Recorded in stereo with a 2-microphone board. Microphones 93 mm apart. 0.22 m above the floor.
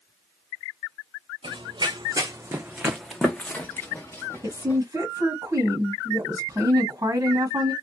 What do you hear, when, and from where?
1.4 s running footsteps: 65° right (ahead or behind), 0.8 m; by 4.8 s 30° left (ahead or behind), 1.4 m
4.4 s a woman speaking: 30° right (ahead or behind), 1.3 m